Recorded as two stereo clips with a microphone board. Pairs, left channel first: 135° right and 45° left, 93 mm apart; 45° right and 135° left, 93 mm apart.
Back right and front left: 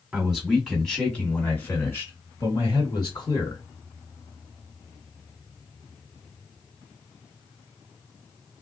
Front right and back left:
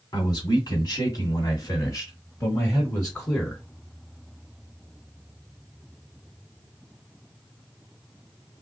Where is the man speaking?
30° right, 1.9 m; by 3.6 s 120° right, 2 m.